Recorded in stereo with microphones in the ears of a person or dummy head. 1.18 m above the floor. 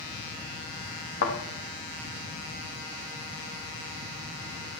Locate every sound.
1.2 s a thud: 65° left (ahead or behind), 3.5 m